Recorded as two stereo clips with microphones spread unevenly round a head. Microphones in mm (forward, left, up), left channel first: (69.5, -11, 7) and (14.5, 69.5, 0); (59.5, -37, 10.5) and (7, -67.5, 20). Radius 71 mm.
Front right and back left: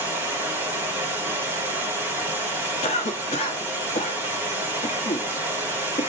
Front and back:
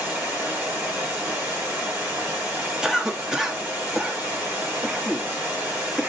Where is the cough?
65° right, 1.1 m.